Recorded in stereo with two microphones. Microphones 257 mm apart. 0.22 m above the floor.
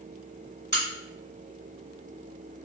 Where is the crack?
40° right (ahead or behind), 1.9 m.